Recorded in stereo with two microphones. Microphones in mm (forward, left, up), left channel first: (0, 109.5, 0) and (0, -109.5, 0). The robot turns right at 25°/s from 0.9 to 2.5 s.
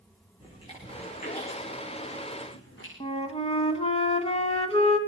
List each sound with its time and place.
0.4 s chewing: 25° left (ahead or behind), 7 m; by 2.9 s 65° left (ahead or behind), 7 m
3.0 s a flute: 25° left (ahead or behind), 1.4 m